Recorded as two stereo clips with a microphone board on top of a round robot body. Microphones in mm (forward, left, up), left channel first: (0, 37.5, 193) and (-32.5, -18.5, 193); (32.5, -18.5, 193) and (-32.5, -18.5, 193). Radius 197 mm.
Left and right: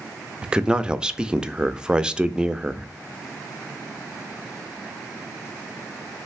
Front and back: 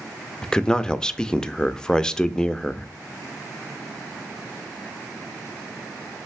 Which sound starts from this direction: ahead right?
A man speaking, at 0.4 s.